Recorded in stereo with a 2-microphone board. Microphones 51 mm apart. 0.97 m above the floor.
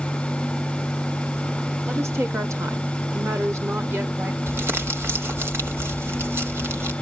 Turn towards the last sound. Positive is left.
turn(degrees=-50)  # may be behind; listen again after turning